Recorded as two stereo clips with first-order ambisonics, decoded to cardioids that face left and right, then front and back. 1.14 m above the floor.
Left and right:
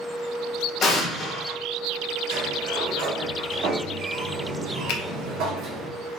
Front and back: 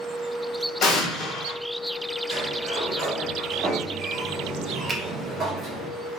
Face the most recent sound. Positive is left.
turn(degrees=100)